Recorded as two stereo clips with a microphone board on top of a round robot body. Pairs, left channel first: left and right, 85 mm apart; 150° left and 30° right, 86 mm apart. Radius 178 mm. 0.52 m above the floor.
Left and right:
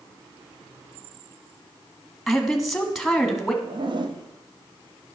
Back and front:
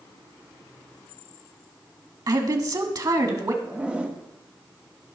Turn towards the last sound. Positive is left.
turn(degrees=-105)